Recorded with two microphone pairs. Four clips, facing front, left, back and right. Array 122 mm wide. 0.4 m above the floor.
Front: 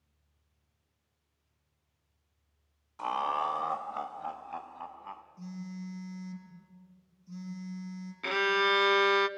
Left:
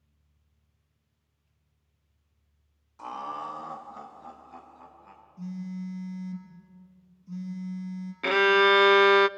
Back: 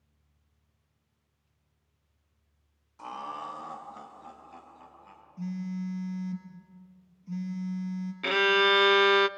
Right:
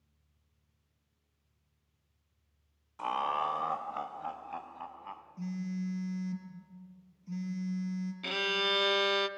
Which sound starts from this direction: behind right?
A phone buzzing, at 5.4 s.